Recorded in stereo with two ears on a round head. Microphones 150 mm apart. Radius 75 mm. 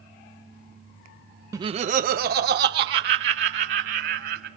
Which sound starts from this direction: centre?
Laughter, at 1.5 s.